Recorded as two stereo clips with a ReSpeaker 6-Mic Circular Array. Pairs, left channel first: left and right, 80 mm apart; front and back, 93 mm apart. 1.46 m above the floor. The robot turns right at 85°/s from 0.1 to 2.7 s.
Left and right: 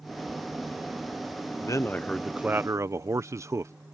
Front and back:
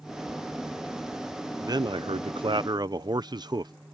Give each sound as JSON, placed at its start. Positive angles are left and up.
{"t": 1.6, "sound": "a man speaking", "azimuth_deg": 125}